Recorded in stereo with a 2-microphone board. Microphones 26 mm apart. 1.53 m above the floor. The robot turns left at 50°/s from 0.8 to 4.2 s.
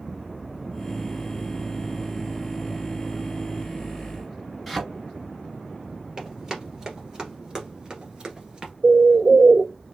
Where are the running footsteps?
20° right (ahead or behind), 2 m; by 8.7 s 30° right (ahead or behind), 1.6 m.